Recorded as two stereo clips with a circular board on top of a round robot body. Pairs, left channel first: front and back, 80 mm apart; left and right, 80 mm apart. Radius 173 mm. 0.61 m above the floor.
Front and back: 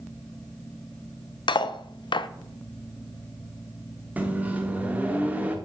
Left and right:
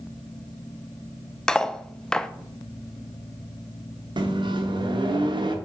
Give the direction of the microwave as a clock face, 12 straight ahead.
4 o'clock.